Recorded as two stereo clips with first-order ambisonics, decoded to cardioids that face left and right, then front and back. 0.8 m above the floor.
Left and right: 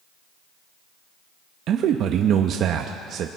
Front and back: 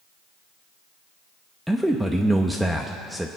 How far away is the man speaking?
About 0.7 m.